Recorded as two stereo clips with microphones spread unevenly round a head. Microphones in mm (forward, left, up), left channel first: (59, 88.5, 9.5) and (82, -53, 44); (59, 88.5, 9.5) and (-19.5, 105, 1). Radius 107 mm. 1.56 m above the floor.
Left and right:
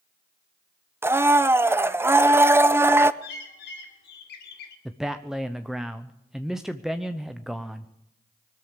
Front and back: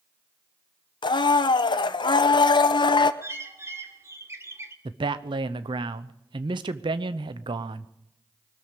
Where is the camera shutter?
No camera shutter in this recording.